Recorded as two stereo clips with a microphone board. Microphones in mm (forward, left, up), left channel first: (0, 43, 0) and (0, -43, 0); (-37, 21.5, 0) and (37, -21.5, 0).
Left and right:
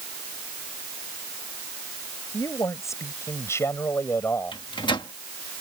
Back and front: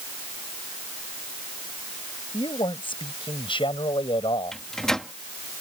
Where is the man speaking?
140° left; by 4.5 s 155° left.